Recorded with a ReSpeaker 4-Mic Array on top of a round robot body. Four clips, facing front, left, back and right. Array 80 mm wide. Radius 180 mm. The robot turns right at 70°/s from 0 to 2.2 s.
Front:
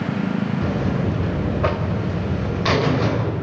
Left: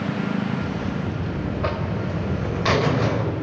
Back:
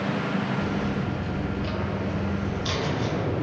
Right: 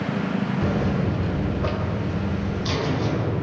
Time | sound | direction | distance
0.6 | a buzzer | 55° right | 3 m